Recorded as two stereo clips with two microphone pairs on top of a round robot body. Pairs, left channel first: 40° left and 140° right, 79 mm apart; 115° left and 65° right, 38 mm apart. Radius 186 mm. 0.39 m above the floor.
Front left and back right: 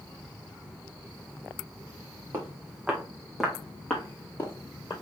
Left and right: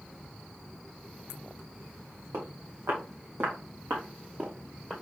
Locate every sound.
2.3 s footsteps: 70° right, 3 m; by 4.9 s 10° right, 2.5 m